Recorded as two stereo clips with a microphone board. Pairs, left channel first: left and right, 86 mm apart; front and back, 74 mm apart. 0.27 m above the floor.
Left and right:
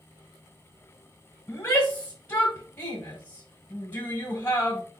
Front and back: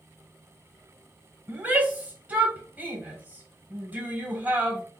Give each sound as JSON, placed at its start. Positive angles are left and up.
{"t": 1.5, "sound": "a shout", "azimuth_deg": 140, "distance_m": 1.1}